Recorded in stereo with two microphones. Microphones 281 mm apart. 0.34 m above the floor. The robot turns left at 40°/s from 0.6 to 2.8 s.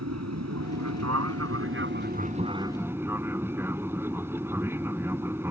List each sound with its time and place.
0.0 s an aircraft: 85° right; by 5.5 s 170° right